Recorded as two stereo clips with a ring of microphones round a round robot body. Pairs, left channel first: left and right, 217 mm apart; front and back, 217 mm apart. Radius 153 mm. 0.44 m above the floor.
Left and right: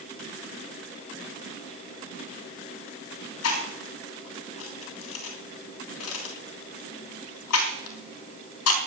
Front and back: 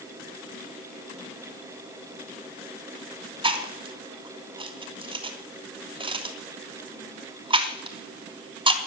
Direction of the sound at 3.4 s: 115° left.